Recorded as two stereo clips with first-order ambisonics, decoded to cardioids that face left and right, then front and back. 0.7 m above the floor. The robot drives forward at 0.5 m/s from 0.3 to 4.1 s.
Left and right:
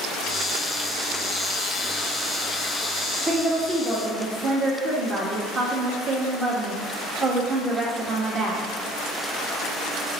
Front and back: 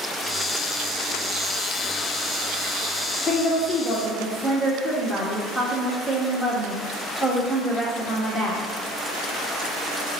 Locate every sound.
3.3 s a woman speaking: 55° right, 1.2 m; by 8.7 s 100° right, 1.1 m